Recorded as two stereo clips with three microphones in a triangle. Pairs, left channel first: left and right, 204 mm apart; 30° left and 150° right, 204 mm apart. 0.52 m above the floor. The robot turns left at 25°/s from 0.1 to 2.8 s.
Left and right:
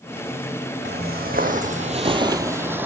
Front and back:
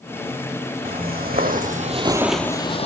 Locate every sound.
0.8 s footsteps: 115° right, 1.4 m; by 2.9 s 15° right, 0.7 m